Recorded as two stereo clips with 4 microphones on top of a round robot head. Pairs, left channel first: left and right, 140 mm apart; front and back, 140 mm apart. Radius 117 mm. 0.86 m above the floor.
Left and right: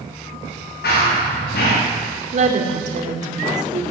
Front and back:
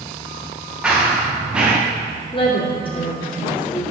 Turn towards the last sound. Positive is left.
turn(degrees=-60)